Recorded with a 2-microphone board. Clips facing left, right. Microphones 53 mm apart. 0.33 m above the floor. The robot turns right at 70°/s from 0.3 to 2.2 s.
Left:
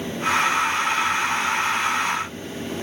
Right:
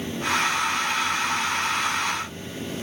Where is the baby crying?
No baby crying in this recording.